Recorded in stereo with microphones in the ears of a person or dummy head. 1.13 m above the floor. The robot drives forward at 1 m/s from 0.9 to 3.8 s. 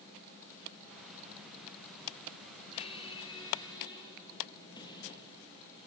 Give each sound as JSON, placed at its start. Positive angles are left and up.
{"t": 2.7, "sound": "a squeak", "side_deg": 30, "distance_m": 2.5}